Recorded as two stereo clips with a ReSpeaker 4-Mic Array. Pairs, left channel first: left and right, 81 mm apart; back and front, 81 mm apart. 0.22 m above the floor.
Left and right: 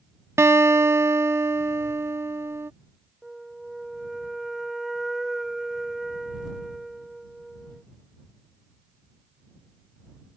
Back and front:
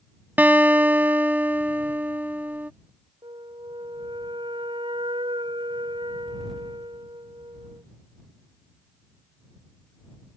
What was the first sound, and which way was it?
A guitar, 55° right.